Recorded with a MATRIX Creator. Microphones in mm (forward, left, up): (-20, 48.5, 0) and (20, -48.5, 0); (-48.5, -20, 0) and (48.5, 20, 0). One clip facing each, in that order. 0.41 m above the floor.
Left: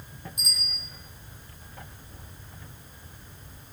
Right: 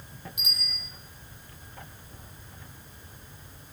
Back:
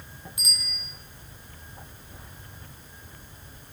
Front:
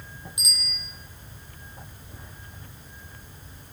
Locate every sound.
0.4 s a bicycle bell: 45° right, 9 m